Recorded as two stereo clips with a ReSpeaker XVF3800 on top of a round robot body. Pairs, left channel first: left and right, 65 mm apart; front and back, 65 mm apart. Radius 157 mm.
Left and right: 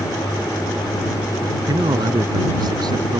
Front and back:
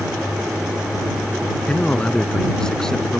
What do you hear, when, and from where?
1.7 s a man speaking: 75° right; by 3.2 s 85° right